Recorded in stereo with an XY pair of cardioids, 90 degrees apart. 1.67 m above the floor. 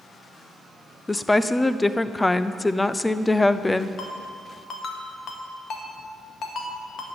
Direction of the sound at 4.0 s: 65° left.